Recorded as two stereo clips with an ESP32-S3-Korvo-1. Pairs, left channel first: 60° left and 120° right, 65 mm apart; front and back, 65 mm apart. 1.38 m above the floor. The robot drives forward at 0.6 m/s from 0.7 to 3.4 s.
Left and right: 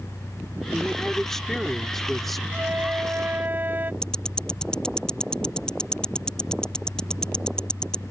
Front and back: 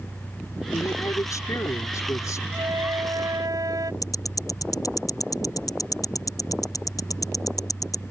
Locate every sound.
0.7 s a woman speaking: 20° right; by 2.4 s 25° right
2.5 s a flute: straight behind
4.0 s ticking: 15° right